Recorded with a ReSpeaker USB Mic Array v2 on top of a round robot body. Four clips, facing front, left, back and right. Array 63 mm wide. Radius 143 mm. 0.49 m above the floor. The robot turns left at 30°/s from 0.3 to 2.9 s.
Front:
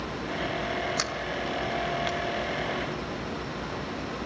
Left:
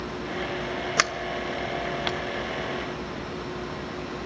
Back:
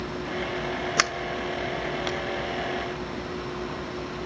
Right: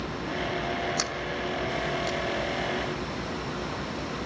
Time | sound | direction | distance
1.0 | a sliding door | 130° left | 0.8 m